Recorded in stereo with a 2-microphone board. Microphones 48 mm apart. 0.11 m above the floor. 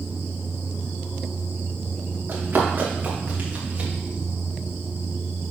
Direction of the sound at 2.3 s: 45° right (ahead or behind).